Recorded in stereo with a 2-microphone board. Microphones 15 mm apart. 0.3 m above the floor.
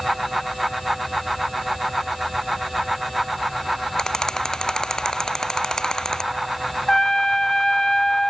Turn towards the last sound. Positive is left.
turn(degrees=40)  # may be behind; listen again after turning